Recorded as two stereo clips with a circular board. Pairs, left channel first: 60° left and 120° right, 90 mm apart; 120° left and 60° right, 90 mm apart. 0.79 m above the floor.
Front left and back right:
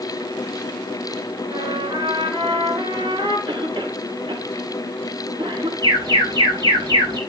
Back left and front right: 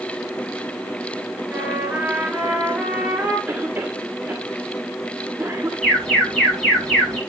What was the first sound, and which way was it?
A trumpet, 140° right.